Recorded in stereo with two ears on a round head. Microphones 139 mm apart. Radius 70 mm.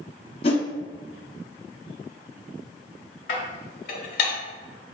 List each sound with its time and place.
0.4 s a whoosh: 40° left (ahead or behind), 0.7 m
3.3 s dishes clattering: 70° left (ahead or behind), 1.2 m